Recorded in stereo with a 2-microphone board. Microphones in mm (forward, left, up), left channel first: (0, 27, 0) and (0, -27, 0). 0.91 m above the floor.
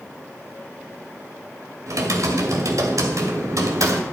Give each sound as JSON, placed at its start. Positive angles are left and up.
{"t": 1.9, "sound": "typing on a keyboard", "side_deg": -85, "distance_m": 2.0}